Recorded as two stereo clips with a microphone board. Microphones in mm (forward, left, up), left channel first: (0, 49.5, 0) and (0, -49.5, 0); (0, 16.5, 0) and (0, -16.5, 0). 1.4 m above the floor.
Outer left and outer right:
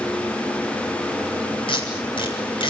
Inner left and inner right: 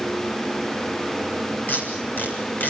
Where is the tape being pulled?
60° left (ahead or behind), 7 m.